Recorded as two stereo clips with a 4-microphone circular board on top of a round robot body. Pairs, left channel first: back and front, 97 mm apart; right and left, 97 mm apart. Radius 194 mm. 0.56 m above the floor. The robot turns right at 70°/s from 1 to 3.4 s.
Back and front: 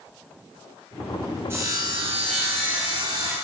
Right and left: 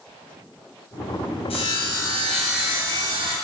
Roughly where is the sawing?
Ahead right.